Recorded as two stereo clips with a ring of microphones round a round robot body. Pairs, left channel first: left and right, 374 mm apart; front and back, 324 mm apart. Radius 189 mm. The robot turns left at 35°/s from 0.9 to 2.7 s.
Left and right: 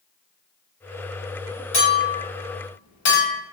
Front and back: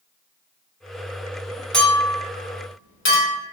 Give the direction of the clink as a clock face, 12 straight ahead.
9 o'clock.